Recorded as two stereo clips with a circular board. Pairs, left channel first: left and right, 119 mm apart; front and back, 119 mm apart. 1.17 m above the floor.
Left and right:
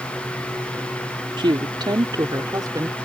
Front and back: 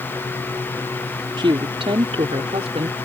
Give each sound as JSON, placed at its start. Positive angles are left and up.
{"t": 1.4, "sound": "a woman speaking", "azimuth_deg": -135}